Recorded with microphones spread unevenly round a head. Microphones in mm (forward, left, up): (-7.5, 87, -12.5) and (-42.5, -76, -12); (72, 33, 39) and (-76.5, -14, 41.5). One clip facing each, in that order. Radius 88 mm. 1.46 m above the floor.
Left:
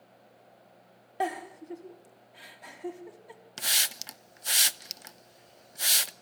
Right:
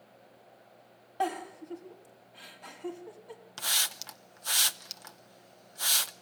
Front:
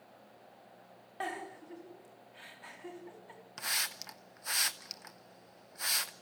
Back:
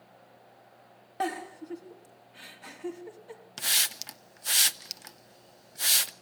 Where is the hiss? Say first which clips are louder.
Left 3 dB, front 1 dB; 145° left, 0.8 m.